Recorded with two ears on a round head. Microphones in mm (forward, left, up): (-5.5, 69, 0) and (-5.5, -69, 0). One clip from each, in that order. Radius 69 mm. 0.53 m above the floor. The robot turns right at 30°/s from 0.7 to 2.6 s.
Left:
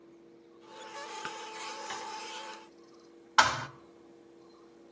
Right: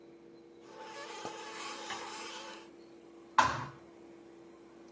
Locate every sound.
1.9 s tapping: 5° left (ahead or behind), 8.5 m; by 2.0 s centre (ahead or behind), 8.5 m
3.4 s a thud: 65° left (ahead or behind), 1.5 m